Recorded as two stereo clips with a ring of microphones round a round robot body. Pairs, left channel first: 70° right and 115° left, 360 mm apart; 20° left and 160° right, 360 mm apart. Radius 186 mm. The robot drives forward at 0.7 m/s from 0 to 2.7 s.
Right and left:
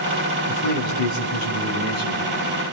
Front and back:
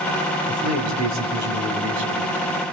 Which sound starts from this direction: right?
A man speaking, at 0.5 s.